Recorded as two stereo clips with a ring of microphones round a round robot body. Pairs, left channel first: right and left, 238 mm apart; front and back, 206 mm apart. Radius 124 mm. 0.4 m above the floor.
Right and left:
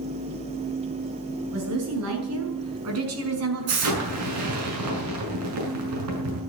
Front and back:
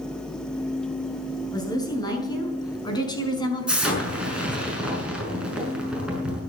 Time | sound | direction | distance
1.5 | a woman speaking | 70° left | 6.5 m
3.7 | an explosion | 95° left | 6.5 m